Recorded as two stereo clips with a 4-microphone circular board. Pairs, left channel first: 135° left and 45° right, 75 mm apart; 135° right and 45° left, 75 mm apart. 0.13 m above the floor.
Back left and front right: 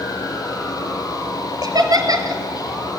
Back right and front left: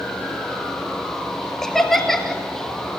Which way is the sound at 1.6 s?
50° right.